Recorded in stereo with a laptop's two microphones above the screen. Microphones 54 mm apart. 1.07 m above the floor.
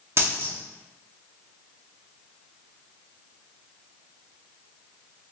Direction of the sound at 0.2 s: 45° right (ahead or behind).